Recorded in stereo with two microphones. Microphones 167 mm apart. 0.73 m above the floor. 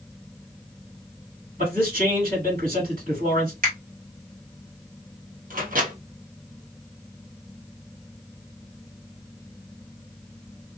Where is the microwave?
55° right (ahead or behind), 1.1 m.